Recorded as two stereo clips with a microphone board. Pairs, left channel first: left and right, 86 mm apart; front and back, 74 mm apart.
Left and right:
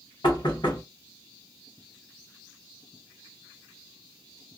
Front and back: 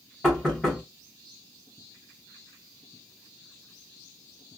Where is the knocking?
90° left, 1.8 m.